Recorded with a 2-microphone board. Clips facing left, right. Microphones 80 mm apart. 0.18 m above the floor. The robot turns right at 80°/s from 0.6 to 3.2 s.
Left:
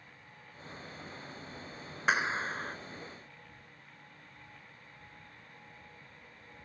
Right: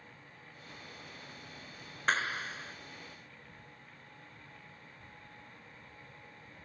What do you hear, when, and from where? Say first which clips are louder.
2.1 s a clap: left 2 dB; 15° left; by 2.8 s 70° left